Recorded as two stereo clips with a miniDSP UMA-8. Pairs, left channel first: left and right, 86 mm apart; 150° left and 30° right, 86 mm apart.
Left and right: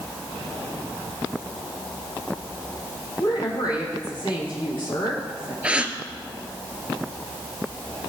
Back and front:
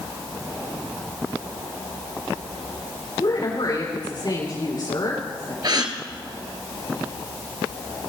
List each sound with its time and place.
3.2 s a woman speaking: 115° left, 8.5 m
5.6 s a gasp: 15° right, 1.4 m